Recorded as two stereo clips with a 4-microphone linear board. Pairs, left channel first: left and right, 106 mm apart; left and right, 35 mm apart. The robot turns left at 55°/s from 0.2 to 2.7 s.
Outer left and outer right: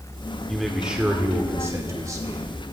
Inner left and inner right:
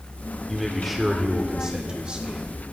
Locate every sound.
0.5 s a man speaking: 5° left, 1.2 m; by 2.5 s 105° right, 1.2 m